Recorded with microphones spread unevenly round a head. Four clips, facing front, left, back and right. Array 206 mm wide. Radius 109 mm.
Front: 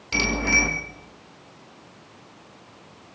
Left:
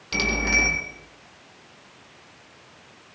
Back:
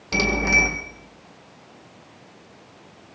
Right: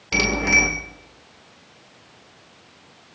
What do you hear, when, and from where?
0.1 s a bicycle bell: 150° right, 2 m